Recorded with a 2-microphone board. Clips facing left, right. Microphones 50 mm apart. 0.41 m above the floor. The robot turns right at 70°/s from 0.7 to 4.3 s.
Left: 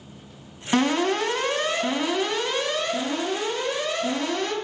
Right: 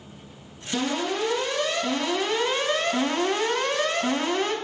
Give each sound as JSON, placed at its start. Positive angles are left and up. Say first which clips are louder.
{"t": 0.7, "sound": "an alarm", "louder": "left 5 dB", "azimuth_deg": 75, "distance_m": 2.0}